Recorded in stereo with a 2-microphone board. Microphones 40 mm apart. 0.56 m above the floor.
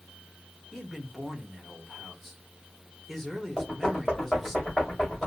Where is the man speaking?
5° left (ahead or behind), 1.4 m.